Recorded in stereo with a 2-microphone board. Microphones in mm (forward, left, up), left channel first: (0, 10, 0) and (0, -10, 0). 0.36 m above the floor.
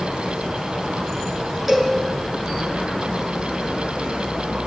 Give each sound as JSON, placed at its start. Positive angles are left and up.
{"t": 1.7, "sound": "a cowbell", "side_deg": -5, "distance_m": 6.5}